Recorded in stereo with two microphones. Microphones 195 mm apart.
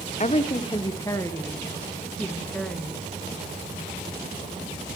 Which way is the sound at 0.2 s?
40° left (ahead or behind).